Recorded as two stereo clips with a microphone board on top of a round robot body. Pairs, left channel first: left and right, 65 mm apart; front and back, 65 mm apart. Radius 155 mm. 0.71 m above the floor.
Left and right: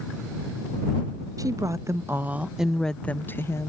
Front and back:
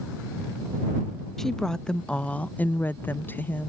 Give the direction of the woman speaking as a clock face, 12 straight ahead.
3 o'clock.